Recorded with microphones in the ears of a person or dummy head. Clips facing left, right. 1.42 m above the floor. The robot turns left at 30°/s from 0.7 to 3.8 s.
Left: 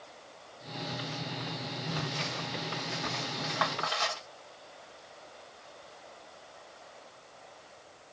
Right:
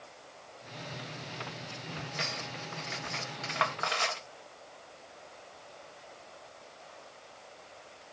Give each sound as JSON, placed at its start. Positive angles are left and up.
{"t": 2.2, "sound": "cutlery clinking", "side_deg": -65, "distance_m": 1.1}